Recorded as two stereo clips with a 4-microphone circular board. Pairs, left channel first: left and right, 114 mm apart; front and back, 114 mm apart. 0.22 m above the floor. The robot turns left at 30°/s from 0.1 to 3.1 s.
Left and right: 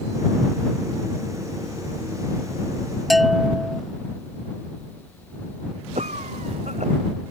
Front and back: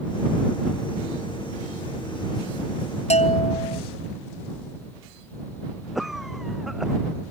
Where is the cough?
90° right.